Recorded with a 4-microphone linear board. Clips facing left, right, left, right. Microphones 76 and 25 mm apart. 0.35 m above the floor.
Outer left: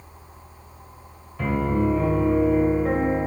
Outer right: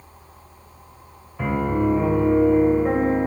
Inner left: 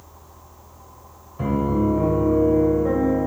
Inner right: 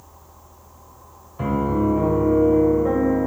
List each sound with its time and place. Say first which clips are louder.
1.4 s a piano: outer right 1 dB, even; 10° right (ahead or behind), 1.6 m